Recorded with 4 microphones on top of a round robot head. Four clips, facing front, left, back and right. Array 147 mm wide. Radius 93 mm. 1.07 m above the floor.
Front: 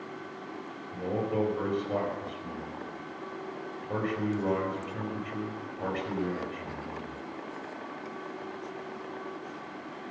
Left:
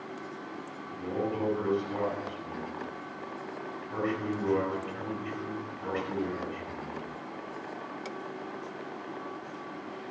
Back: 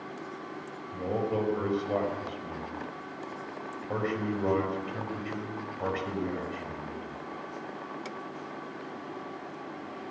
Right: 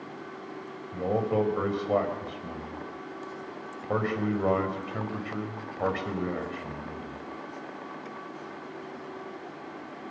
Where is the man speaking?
95° right, 4.5 m.